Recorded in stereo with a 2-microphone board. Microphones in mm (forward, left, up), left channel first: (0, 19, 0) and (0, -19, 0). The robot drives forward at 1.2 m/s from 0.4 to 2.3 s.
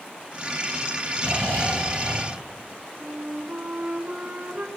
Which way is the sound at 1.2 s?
65° left (ahead or behind).